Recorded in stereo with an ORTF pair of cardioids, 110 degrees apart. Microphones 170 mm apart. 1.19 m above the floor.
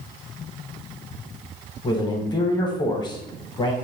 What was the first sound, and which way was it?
A man speaking, 25° left.